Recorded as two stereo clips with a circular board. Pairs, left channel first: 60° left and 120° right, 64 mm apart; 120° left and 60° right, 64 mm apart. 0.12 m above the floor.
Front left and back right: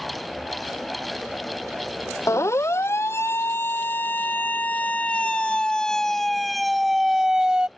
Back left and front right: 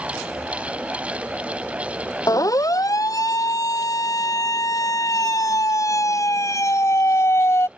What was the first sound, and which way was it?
A siren, 100° left.